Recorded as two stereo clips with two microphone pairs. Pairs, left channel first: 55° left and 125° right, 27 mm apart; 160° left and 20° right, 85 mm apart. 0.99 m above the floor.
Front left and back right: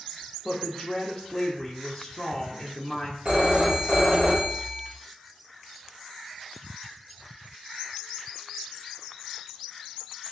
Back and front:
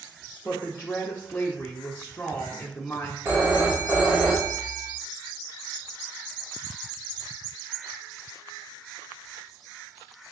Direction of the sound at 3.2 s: 75° right.